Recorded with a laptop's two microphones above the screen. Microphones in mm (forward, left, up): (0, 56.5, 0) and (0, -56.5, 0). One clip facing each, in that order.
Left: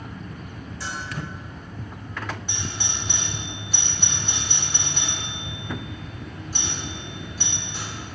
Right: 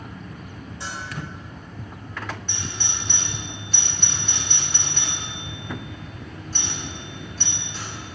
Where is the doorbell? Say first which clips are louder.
Left 1 dB; 10° left (ahead or behind), 2.5 m.